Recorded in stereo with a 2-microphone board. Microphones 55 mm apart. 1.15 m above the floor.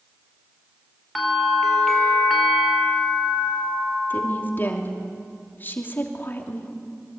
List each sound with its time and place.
1.1 s a bell: centre (ahead or behind), 4.5 m
4.1 s a woman speaking: 35° left (ahead or behind), 3 m